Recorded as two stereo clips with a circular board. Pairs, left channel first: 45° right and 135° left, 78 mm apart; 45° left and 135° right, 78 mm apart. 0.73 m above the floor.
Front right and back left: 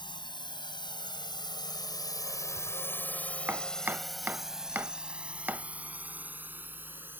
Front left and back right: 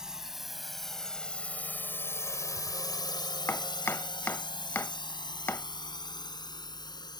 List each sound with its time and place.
0.0 s a drone: 55° right; by 7.2 s 70° left
3.5 s chopping: 85° left